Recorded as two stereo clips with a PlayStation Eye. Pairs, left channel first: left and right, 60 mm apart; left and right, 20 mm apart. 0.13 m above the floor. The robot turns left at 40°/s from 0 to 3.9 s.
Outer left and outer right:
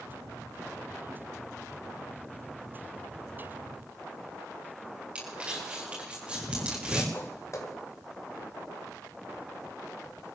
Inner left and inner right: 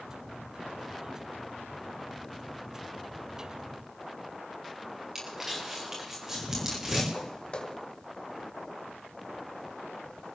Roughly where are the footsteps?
Left.